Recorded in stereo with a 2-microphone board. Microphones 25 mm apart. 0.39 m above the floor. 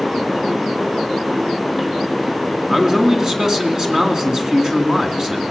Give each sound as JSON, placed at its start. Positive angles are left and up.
{"t": 2.7, "sound": "a man speaking", "side_deg": -20, "distance_m": 3.0}